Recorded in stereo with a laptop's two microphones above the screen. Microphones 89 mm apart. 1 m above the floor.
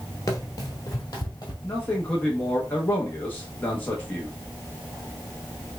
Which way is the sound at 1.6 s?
20° left (ahead or behind).